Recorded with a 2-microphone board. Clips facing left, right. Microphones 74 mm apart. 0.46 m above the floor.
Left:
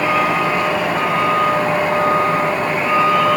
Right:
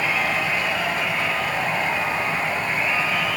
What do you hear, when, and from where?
0.0 s a vehicle: 60° left (ahead or behind)